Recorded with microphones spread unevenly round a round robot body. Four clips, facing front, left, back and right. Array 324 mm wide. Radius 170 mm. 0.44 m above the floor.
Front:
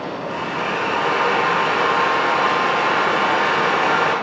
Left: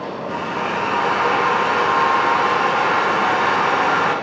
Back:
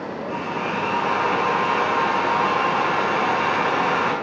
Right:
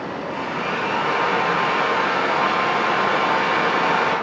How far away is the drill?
About 5 m.